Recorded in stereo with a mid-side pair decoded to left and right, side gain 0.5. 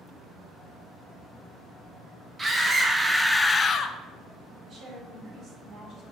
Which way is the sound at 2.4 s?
20° right.